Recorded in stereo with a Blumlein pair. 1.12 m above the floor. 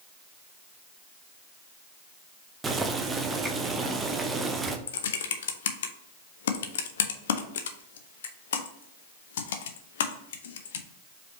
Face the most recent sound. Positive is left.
turn(degrees=60)